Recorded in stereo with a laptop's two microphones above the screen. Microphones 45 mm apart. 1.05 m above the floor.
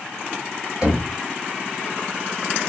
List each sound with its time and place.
0.8 s knocking: 25° right (ahead or behind), 1.6 m